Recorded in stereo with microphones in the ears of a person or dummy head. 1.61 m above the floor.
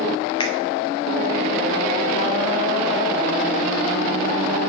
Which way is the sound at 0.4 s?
35° left (ahead or behind).